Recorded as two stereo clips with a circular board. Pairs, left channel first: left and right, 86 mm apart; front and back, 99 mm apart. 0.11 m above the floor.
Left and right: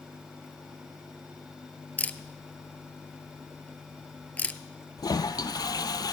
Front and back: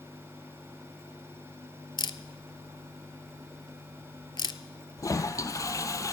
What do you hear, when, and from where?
2.0 s a camera shutter: 20° left, 0.6 m
5.0 s a toilet flushing: 55° left, 0.7 m